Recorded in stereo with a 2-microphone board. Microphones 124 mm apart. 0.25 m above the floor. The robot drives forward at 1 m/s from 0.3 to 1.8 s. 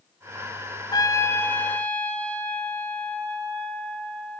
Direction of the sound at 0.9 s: 35° left (ahead or behind).